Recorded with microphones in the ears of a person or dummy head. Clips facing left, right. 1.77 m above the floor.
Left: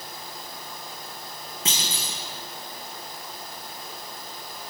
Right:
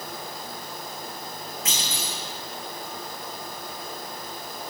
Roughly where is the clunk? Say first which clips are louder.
Left 2 dB; left.